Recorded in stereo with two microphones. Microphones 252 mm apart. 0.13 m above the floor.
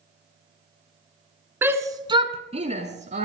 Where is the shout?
10° right (ahead or behind), 1.2 m; by 3.3 s 30° right (ahead or behind), 1.6 m.